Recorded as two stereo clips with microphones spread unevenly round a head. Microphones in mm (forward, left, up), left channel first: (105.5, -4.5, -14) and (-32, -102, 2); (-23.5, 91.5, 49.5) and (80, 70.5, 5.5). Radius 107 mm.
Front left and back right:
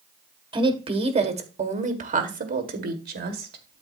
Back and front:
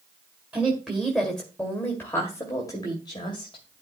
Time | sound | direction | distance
0.5 | a woman speaking | 85° right | 2.5 m